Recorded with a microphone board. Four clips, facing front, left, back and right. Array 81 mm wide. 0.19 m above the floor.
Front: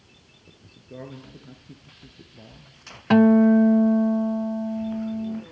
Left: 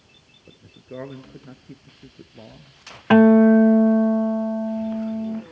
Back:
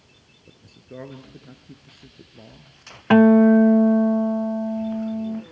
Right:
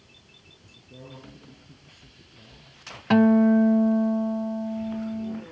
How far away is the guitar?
About 0.5 m.